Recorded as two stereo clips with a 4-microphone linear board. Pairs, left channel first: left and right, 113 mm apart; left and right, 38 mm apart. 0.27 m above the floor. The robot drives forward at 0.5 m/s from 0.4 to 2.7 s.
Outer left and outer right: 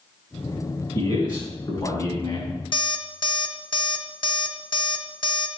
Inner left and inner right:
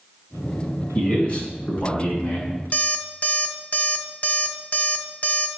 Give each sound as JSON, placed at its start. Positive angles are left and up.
{"t": 0.9, "sound": "a man speaking", "side_deg": 40, "distance_m": 2.5}
{"t": 2.7, "sound": "an alarm clock", "side_deg": 45, "distance_m": 0.7}